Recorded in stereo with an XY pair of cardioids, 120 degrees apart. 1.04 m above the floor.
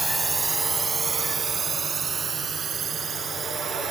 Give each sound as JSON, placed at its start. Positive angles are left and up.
{"t": 0.0, "sound": "a drone", "azimuth_deg": -15}